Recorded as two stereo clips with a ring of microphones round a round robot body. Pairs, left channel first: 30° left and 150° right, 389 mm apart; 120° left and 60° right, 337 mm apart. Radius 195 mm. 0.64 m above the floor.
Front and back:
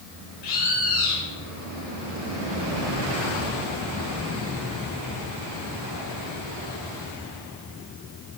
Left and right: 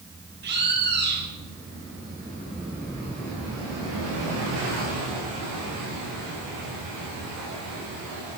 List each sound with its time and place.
0.4 s a bird: straight ahead, 3.5 m